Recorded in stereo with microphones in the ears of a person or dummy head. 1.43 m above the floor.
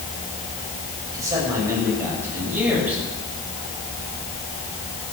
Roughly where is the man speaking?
Right.